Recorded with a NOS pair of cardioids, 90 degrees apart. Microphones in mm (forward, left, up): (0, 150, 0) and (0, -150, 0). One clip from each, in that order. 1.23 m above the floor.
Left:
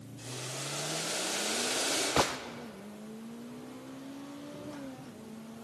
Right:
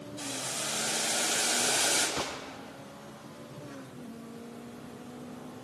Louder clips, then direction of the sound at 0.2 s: Right 4 dB; 70° right.